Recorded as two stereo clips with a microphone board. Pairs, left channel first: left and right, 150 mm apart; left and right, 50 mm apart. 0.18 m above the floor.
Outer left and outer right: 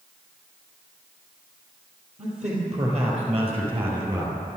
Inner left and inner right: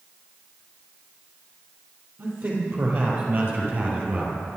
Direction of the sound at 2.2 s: 50° right (ahead or behind).